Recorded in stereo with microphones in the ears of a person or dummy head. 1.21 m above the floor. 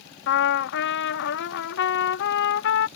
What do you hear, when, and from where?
0.3 s a trumpet: 60° left (ahead or behind)